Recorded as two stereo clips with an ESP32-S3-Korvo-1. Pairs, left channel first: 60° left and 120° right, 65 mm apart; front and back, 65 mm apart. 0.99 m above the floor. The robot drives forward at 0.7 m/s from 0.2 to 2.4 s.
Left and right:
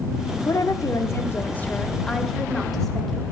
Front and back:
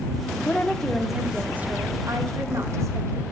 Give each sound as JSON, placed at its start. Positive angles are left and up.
{"t": 0.5, "sound": "a woman speaking", "azimuth_deg": 55, "distance_m": 0.9}